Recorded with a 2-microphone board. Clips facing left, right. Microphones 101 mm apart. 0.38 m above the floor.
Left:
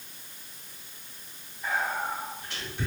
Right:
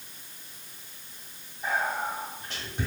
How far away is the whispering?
About 1.5 m.